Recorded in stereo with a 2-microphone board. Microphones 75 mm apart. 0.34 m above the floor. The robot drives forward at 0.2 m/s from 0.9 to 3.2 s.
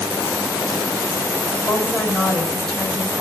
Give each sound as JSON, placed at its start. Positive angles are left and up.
{"t": 1.7, "sound": "a woman speaking", "side_deg": 15, "distance_m": 1.7}